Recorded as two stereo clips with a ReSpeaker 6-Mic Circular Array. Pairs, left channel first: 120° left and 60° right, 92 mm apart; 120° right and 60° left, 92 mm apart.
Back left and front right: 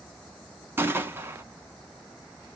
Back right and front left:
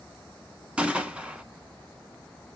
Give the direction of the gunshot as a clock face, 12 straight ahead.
12 o'clock.